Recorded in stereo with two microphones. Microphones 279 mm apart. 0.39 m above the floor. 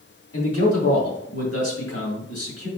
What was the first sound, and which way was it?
A man speaking, 60° left (ahead or behind).